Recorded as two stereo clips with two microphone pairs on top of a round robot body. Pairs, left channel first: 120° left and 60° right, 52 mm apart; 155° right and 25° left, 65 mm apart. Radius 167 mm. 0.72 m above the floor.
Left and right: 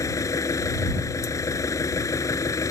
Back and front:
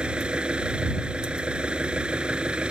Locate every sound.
0.0 s an engine running: 105° left